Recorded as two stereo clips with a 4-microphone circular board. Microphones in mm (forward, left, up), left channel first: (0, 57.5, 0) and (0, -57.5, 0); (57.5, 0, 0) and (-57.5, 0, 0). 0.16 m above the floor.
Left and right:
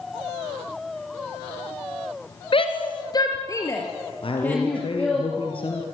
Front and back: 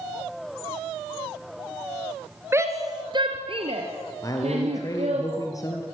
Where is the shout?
115° left, 2.5 m; by 5.2 s 170° left, 5.5 m.